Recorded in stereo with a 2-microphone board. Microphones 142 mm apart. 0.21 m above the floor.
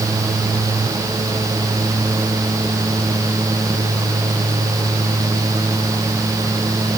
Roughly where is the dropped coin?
No dropped coin in this recording.